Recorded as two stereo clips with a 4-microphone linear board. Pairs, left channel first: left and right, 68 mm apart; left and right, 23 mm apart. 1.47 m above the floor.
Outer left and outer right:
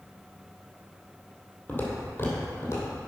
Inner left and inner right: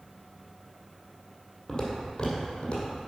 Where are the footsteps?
30° left (ahead or behind), 2 m; by 3.0 s 50° left (ahead or behind), 3 m.